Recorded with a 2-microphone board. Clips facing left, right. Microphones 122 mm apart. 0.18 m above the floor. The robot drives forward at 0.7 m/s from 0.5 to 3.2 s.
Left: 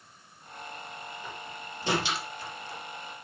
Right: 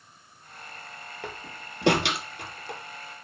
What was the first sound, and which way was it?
A door slam, 75° right (ahead or behind).